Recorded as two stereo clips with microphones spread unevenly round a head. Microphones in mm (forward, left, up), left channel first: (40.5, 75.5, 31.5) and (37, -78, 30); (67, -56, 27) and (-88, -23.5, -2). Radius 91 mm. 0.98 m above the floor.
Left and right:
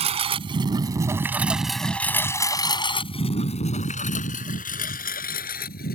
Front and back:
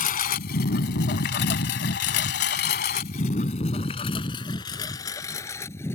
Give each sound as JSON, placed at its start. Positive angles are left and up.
{"t": 0.0, "sound": "a lawn mower", "azimuth_deg": -40}